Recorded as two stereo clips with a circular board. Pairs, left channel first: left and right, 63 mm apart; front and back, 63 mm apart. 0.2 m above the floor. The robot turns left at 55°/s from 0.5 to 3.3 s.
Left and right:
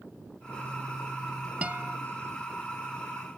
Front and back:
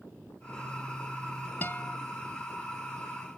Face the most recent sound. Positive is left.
turn(degrees=-130)